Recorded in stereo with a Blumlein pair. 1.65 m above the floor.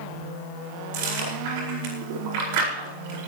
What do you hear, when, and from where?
0.9 s chewing: 50° right, 4.5 m